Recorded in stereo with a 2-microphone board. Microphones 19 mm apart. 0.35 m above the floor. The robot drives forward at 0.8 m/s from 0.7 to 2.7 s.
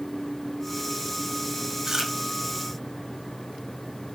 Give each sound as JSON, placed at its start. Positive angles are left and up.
{"t": 1.9, "sound": "chewing", "side_deg": -25, "distance_m": 0.8}